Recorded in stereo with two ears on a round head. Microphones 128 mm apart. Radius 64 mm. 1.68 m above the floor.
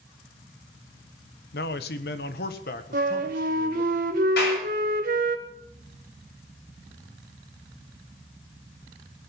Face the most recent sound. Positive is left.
turn(degrees=80)